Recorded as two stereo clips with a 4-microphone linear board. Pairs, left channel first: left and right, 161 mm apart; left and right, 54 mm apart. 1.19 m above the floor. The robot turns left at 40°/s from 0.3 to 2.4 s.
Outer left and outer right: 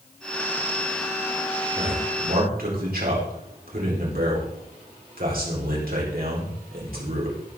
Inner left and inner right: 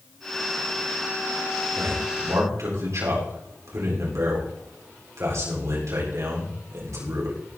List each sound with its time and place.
1.8 s a man speaking: 80° right, 4.5 m; by 7.6 s 70° right (ahead or behind), 4.5 m